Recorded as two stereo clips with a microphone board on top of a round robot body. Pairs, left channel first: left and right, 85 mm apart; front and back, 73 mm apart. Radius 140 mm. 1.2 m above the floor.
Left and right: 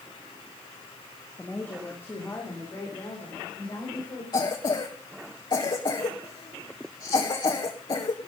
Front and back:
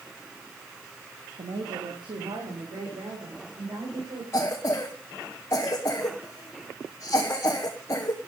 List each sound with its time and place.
1.4 s a woman speaking: 170° left, 1.9 m; by 4.2 s 145° left, 6 m
4.3 s a cough: 55° left, 1.6 m